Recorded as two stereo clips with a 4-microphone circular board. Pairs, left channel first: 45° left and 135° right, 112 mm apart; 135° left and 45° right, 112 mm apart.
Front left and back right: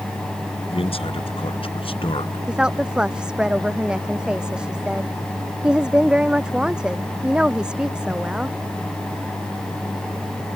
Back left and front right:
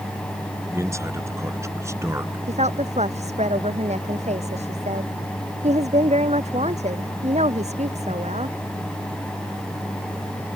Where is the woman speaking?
55° right.